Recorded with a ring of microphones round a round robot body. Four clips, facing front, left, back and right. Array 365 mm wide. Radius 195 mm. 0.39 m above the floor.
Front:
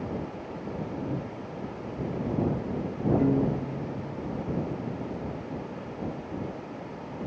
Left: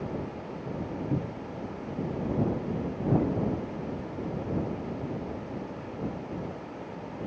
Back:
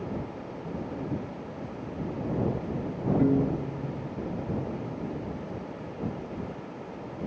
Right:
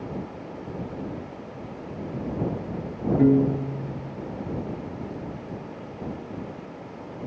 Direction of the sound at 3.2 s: 95° right.